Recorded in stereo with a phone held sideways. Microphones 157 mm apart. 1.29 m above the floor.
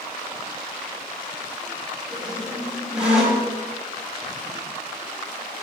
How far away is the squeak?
About 4.5 m.